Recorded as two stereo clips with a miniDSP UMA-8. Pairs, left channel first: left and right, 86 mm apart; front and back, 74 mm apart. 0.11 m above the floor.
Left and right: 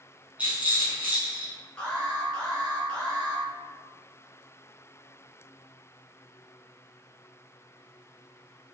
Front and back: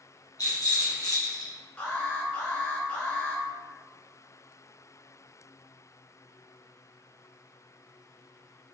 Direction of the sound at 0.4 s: 20° right.